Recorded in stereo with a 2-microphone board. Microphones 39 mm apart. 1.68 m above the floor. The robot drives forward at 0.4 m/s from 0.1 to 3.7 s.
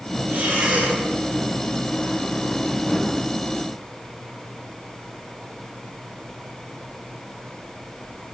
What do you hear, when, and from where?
0.3 s breathing: 55° right (ahead or behind), 4 m